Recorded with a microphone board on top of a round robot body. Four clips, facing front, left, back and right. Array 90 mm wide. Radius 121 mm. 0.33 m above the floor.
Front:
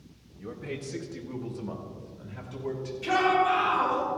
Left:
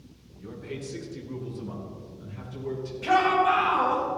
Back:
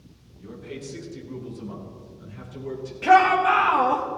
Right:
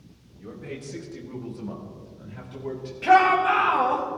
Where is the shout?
150° right, 2.5 m.